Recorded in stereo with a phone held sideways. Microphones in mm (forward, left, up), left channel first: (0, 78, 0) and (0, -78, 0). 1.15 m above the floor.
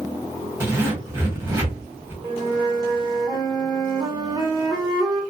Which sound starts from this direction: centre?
A zipper, at 0.6 s.